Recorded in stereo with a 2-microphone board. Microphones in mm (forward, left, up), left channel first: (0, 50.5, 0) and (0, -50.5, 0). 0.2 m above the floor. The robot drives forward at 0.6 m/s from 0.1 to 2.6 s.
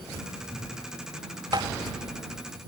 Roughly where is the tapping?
Right.